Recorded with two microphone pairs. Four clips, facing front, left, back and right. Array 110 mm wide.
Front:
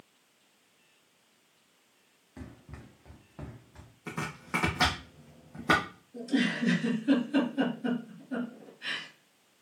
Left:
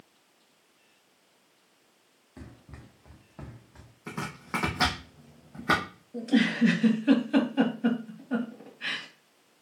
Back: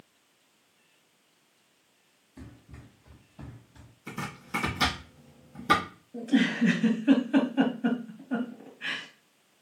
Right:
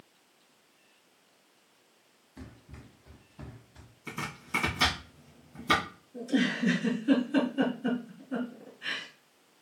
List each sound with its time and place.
2.4 s running footsteps: 40° left, 2.0 m; by 3.9 s 60° left, 2.5 m
4.1 s chopping: 55° left, 2.5 m
6.1 s a giggle: 120° left, 2 m